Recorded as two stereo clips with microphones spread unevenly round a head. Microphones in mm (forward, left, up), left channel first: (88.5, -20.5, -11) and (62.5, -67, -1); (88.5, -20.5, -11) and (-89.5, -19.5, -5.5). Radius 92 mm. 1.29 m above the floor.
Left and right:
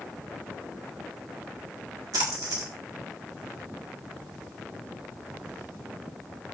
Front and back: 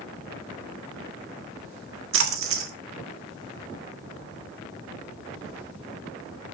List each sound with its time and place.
2.1 s a splash: 170° right, 1.5 m